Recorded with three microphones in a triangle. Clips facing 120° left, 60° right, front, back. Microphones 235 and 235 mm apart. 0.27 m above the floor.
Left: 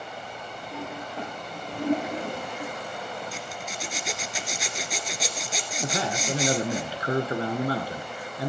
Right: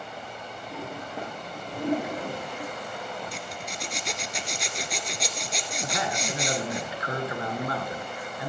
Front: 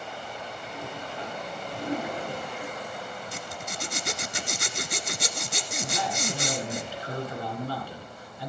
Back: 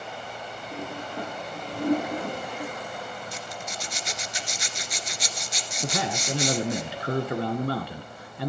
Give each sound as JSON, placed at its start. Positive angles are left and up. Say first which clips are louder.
{"t": 0.7, "sound": "a toilet flushing", "louder": "left 1 dB, back 5 dB", "azimuth_deg": -140, "distance_m": 9.5}
{"t": 3.3, "sound": "a zipper", "louder": "left 1 dB, even", "azimuth_deg": 30, "distance_m": 1.6}
{"t": 5.8, "sound": "a man speaking", "louder": "left 3 dB, back 3 dB", "azimuth_deg": 175, "distance_m": 3.0}